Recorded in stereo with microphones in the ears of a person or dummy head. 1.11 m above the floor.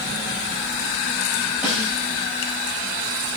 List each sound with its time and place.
1.6 s a snare drum: 10° right (ahead or behind), 8 m